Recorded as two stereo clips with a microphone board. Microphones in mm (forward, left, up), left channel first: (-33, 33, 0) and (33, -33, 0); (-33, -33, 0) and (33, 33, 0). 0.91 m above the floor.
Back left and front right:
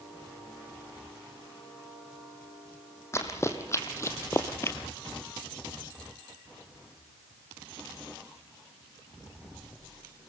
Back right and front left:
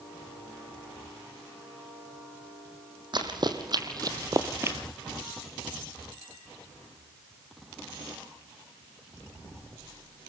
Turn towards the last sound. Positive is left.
turn(degrees=90)